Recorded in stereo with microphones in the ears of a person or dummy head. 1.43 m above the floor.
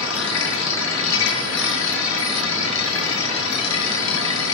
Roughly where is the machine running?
Left.